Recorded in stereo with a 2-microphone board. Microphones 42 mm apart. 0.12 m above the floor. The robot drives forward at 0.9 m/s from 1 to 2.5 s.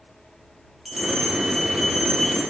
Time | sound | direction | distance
0.8 | a bell | centre (ahead or behind) | 7 m